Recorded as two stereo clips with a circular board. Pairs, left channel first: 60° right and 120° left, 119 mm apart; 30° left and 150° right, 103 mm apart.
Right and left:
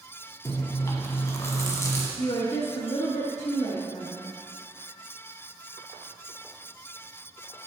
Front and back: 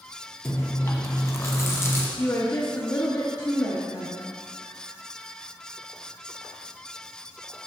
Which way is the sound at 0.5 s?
15° right.